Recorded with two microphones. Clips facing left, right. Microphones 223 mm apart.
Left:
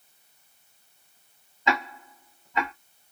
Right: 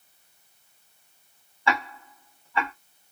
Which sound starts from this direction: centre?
Ticking, at 1.7 s.